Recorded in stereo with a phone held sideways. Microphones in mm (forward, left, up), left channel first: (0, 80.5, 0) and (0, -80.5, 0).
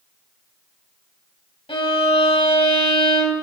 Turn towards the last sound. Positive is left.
turn(degrees=35)  # may be behind; listen again after turning